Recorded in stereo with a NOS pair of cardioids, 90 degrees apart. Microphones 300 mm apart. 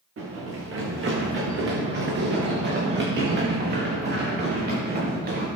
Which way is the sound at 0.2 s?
45° right.